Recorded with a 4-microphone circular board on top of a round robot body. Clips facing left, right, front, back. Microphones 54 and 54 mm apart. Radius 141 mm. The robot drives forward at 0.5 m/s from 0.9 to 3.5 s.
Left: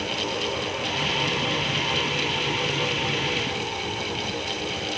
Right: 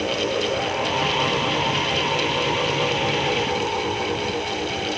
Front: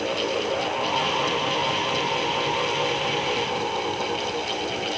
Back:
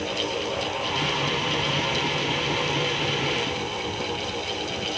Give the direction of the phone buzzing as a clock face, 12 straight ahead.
I don't hear a phone buzzing.